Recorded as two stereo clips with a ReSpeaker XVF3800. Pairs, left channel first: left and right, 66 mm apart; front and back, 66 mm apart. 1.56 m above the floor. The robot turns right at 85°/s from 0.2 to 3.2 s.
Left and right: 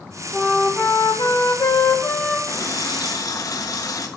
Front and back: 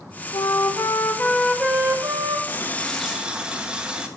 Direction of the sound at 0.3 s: 5° right.